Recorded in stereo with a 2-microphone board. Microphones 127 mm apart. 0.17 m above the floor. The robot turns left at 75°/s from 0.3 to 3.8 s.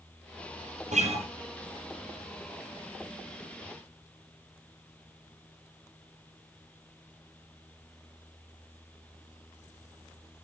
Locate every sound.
0.9 s a guitar: 70° right (ahead or behind), 3 m; by 1.3 s 45° right (ahead or behind), 3 m